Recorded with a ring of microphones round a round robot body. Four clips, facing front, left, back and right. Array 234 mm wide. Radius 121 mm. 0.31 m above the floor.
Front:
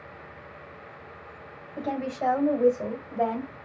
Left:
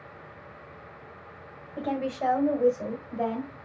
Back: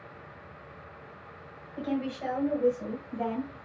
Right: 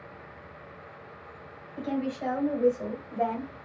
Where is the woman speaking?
40° left, 1.9 m; by 3.5 s 10° right, 2 m.